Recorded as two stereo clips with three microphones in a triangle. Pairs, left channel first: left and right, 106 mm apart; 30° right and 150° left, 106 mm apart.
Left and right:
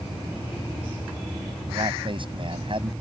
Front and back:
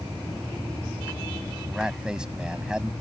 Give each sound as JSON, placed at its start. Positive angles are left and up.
{"t": 1.7, "sound": "a man speaking", "azimuth_deg": -125}